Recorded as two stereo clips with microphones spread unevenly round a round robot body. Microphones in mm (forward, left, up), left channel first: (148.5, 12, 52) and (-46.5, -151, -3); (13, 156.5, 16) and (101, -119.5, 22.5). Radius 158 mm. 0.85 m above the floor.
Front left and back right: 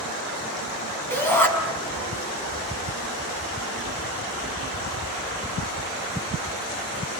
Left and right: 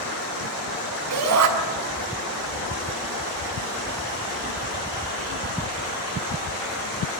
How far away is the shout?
About 7 m.